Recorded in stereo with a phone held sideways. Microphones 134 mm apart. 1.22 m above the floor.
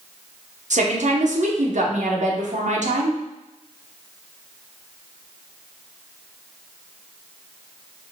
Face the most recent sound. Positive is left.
turn(degrees=-65)  # may be behind; listen again after turning